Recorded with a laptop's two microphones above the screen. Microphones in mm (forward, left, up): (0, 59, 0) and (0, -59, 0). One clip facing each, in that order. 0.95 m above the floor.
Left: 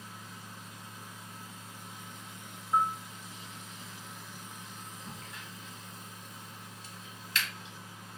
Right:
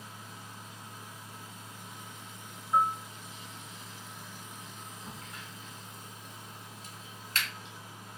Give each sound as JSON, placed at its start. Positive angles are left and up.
{"t": 0.0, "sound": "a fan", "side_deg": -35, "distance_m": 1.4}
{"t": 2.7, "sound": "a bell", "side_deg": 5, "distance_m": 0.8}
{"t": 5.1, "sound": "a crack", "side_deg": -45, "distance_m": 1.5}